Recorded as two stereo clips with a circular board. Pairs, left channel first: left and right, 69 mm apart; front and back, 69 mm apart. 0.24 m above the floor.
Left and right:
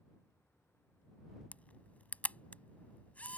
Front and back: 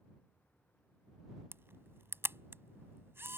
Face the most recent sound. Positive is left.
turn(degrees=145)